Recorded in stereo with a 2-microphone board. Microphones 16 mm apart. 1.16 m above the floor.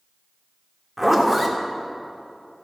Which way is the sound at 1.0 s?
10° right (ahead or behind).